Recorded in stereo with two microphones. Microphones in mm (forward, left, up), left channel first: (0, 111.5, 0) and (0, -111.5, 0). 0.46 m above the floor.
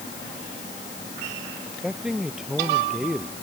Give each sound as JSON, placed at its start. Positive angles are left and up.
{"t": 1.7, "sound": "a man speaking", "side_deg": 0}